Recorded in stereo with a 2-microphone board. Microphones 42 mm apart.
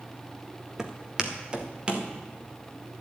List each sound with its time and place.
0.8 s footsteps: 15° right (ahead or behind), 1.6 m; by 2.1 s 25° right (ahead or behind), 2.5 m